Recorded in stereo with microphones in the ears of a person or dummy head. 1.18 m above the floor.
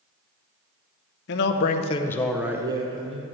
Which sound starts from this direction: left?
A man speaking, at 1.3 s.